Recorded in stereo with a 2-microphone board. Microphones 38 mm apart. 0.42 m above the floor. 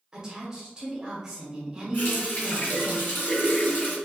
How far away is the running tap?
About 1.6 m.